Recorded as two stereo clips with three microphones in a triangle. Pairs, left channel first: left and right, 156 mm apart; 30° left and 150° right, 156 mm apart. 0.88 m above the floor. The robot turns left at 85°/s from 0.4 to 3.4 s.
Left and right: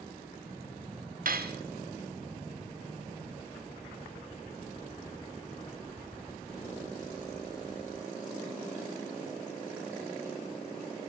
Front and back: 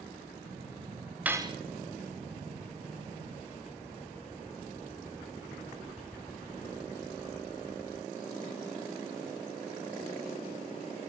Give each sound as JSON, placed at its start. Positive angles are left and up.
{"t": 1.2, "sound": "cutlery clinking", "azimuth_deg": -70, "distance_m": 0.5}